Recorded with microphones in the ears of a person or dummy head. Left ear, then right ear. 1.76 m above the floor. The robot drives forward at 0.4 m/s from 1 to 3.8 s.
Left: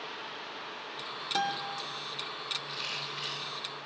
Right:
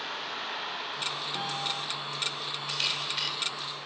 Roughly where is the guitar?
Left.